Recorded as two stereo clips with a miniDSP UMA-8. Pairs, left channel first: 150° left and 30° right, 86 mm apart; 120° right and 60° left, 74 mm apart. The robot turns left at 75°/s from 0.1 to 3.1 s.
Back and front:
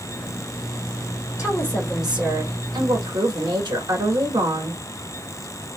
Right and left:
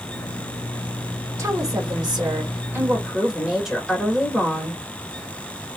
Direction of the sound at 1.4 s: 105° left.